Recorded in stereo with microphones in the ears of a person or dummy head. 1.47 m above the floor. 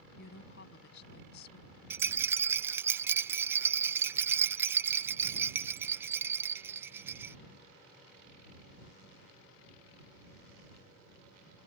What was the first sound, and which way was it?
A woman speaking, 65° left (ahead or behind).